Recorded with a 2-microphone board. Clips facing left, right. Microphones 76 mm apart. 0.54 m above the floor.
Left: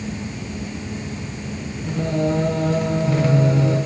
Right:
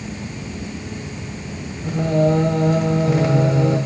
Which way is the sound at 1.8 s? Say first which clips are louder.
Right 4 dB; 15° right (ahead or behind).